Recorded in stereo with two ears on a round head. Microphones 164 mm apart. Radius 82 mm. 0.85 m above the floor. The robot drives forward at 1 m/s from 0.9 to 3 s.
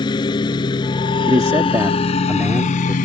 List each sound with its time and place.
0.0 s a lawn mower: 25° left (ahead or behind); by 3.0 s 45° left (ahead or behind)
1.3 s a man speaking: 20° right (ahead or behind); by 2.9 s 10° right (ahead or behind)